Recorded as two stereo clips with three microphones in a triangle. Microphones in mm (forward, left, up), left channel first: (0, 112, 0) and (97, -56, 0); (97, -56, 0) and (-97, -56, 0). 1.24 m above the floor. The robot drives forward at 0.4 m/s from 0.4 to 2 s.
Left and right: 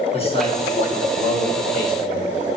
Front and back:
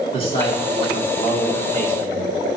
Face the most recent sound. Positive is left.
turn(degrees=80)